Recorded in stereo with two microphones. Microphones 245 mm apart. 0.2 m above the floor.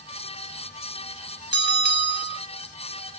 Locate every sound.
1.5 s a bell: 45° right (ahead or behind), 0.9 m